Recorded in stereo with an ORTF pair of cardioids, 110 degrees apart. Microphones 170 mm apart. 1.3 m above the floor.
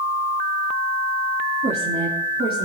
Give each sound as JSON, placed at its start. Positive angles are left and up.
{"t": 1.6, "sound": "a woman speaking", "azimuth_deg": -40, "distance_m": 3.5}